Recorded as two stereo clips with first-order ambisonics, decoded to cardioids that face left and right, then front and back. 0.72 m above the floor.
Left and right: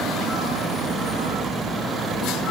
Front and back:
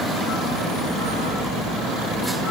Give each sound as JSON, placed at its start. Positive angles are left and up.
{"t": 1.5, "sound": "keys jangling", "azimuth_deg": 15}